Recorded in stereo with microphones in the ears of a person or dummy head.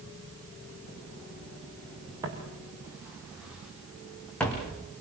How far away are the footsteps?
About 6.5 m.